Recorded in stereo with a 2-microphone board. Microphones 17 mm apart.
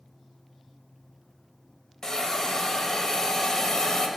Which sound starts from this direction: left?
A hiss, at 2.0 s.